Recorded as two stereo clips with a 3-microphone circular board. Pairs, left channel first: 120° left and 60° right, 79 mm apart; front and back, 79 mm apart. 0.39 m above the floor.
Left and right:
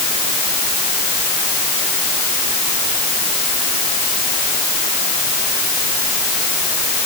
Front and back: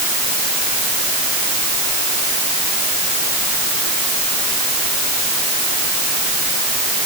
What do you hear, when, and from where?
Only background noise.